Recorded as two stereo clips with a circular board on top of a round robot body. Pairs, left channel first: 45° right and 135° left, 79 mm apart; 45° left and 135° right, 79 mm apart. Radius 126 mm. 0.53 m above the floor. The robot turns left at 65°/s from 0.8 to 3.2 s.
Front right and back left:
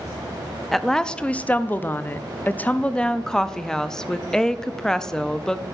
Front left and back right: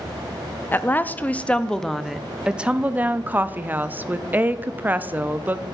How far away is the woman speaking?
About 0.6 m.